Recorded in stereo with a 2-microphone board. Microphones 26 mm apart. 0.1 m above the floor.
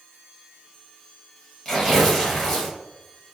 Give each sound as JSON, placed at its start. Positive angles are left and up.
{"t": 1.6, "sound": "tearing paper", "side_deg": 20, "distance_m": 1.8}